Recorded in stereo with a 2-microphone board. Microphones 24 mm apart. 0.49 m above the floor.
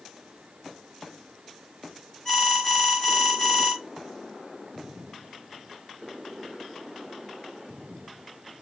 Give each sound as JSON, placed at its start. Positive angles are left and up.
{"t": 2.2, "sound": "an alarm", "side_deg": 25, "distance_m": 1.6}